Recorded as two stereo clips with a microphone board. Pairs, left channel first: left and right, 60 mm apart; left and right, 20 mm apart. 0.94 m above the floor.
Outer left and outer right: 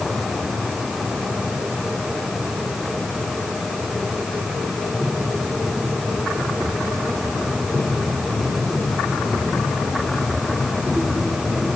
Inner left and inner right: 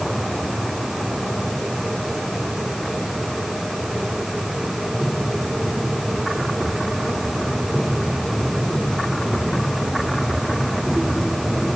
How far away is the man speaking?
I don't hear a man speaking.